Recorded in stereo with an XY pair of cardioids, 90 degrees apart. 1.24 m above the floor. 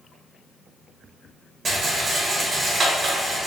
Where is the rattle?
45° right, 1.2 m.